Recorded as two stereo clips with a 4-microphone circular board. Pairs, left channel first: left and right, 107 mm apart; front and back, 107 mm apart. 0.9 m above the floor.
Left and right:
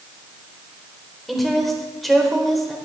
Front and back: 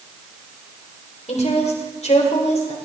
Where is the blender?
No blender in this recording.